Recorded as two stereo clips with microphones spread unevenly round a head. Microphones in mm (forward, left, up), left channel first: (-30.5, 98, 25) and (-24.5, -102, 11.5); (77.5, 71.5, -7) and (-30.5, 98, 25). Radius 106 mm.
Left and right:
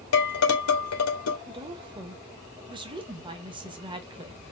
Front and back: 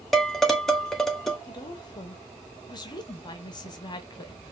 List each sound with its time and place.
0.1 s dishes clattering: 70° left, 1.6 m
1.5 s a woman speaking: 30° right, 0.9 m